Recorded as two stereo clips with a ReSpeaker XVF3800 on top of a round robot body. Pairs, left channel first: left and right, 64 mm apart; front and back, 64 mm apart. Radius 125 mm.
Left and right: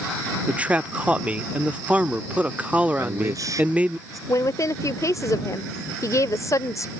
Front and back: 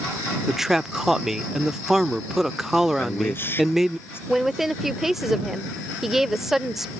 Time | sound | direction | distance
0.5 | a man speaking | 105° right | ?
3.0 | a man speaking | 55° right | ?
4.3 | a woman speaking | 95° left | ?